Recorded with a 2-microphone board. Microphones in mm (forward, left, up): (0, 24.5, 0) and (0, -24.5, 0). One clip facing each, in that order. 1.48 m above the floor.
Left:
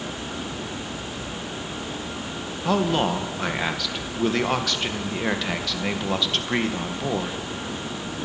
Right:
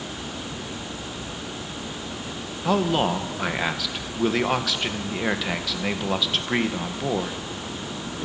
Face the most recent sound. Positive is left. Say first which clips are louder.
# even
turn(degrees=0)  # may be behind; listen again after turning